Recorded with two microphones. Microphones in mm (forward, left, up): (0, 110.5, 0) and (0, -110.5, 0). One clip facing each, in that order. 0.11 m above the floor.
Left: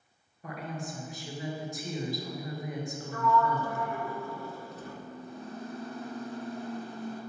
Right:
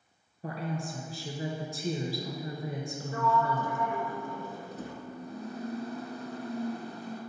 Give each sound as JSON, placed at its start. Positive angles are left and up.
{"t": 0.4, "sound": "a woman speaking", "side_deg": -35, "distance_m": 1.5}
{"t": 3.1, "sound": "a sliding door", "side_deg": -20, "distance_m": 1.1}
{"t": 4.7, "sound": "a microwave", "side_deg": -40, "distance_m": 2.0}